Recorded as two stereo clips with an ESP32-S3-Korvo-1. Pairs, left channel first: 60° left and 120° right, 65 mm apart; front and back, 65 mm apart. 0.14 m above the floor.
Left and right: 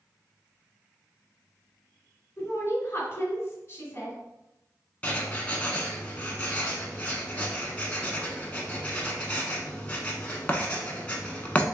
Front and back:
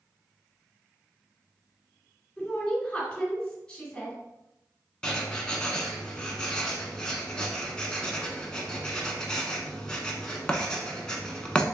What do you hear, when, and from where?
2.4 s a woman speaking: 65° left, 1.6 m
5.0 s writing: 50° left, 0.7 m